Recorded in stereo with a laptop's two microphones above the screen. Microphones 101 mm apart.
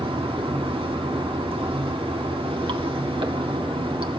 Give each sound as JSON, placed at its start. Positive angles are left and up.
{"t": 0.0, "sound": "running water", "side_deg": -60, "distance_m": 1.7}